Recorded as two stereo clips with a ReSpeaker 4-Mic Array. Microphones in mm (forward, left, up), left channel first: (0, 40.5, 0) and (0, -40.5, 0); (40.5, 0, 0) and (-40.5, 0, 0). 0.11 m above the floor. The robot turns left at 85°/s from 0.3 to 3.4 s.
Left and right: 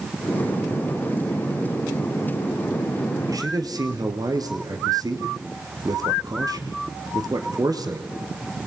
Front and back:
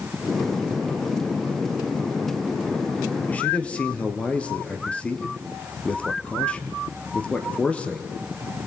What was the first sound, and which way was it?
A man speaking, 60° right.